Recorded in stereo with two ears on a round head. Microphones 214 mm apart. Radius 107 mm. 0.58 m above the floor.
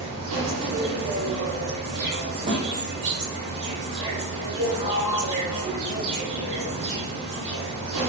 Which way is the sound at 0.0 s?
85° right.